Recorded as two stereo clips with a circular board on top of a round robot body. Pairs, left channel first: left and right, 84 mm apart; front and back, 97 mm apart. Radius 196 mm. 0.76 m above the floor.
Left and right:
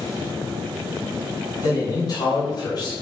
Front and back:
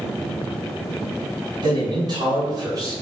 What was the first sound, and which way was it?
A man speaking, 135° left.